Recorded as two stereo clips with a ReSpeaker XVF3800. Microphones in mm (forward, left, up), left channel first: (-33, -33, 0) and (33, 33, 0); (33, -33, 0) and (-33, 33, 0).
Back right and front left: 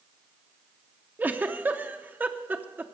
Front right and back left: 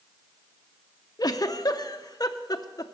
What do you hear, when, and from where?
1.2 s a giggle: 20° right, 0.6 m